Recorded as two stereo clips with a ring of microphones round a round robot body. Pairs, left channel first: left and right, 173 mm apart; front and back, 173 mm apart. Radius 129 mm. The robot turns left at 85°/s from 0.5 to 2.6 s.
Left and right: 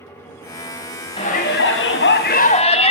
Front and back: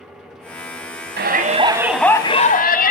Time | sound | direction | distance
1.2 | a shout | 160° left | 3.5 m